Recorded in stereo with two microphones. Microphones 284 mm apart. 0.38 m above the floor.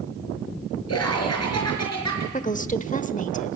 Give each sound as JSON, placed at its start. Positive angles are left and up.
{"t": 0.9, "sound": "laughter", "side_deg": 55, "distance_m": 5.0}
{"t": 2.3, "sound": "a woman speaking", "side_deg": 25, "distance_m": 0.9}